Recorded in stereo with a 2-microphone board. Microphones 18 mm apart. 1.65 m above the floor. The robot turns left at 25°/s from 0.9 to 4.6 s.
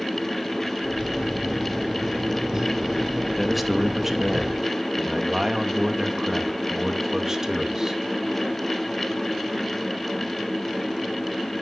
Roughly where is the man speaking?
Ahead.